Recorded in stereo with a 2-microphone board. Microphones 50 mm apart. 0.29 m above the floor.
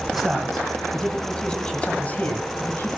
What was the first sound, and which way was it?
A man speaking, centre (ahead or behind).